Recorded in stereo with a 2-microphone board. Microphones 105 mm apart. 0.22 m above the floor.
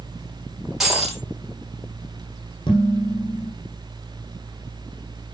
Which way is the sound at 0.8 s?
5° right (ahead or behind).